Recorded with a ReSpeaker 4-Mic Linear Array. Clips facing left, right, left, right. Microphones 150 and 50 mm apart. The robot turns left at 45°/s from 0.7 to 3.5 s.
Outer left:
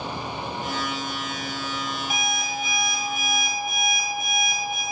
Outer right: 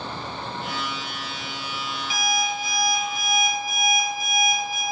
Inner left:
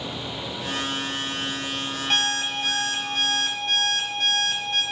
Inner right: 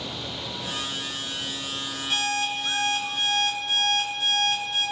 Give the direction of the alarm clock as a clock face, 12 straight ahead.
8 o'clock.